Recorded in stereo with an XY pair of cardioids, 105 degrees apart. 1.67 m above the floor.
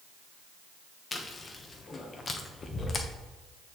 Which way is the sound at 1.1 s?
35° left.